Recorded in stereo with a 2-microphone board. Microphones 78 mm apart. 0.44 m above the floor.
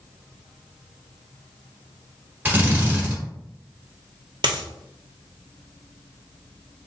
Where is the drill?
20° right (ahead or behind), 1.2 m.